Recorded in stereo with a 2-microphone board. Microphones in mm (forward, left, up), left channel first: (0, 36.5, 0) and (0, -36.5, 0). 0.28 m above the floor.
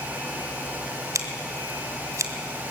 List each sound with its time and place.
1.1 s scissors: 50° right (ahead or behind), 2 m